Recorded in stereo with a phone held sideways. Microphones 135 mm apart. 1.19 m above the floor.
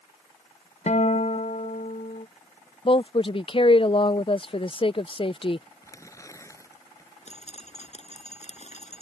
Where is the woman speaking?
40° left (ahead or behind).